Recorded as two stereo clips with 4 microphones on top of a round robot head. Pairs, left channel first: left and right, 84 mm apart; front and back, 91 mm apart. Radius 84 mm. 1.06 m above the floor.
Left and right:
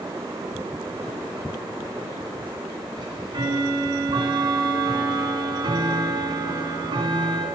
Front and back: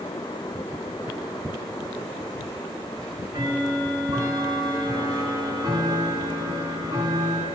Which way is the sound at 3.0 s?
120° right.